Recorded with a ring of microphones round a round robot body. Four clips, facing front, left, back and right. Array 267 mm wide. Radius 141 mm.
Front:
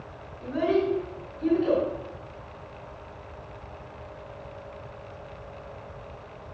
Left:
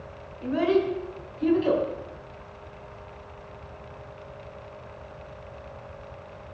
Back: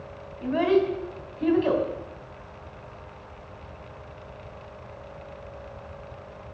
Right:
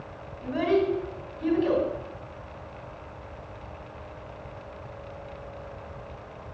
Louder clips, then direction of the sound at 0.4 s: Left 1 dB, back 3 dB; 170° right.